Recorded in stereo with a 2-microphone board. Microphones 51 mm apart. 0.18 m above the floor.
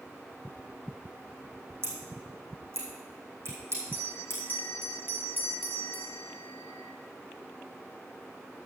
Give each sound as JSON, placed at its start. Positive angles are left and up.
{"t": 1.8, "sound": "scissors", "side_deg": -50, "distance_m": 4.0}
{"t": 3.9, "sound": "a bell", "side_deg": -40, "distance_m": 1.2}